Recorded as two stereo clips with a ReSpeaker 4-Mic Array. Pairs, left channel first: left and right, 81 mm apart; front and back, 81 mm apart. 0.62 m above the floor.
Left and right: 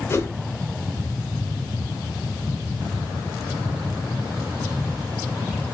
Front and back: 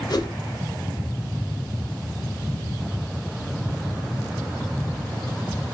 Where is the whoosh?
35° left, 0.7 m.